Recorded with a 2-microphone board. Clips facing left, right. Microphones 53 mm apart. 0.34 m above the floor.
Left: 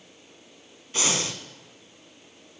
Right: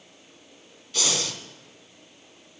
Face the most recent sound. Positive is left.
turn(degrees=30)  # may be behind; listen again after turning